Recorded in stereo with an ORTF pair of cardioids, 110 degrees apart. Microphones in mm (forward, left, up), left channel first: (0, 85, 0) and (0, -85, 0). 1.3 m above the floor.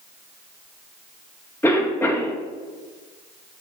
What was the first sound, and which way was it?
A cough, 15° left.